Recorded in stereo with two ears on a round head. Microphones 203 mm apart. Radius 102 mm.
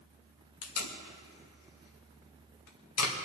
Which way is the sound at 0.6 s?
75° left (ahead or behind).